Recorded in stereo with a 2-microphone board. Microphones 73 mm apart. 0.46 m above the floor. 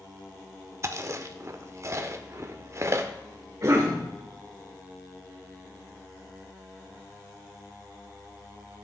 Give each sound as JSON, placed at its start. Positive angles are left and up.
{"t": 0.8, "sound": "chewing", "side_deg": -45, "distance_m": 0.6}
{"t": 3.6, "sound": "a cough", "side_deg": -45, "distance_m": 1.1}